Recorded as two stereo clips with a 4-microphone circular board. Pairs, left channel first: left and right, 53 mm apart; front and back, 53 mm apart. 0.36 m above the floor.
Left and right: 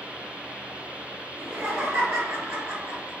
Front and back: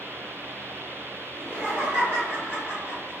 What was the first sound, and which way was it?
Laughter, 120° right.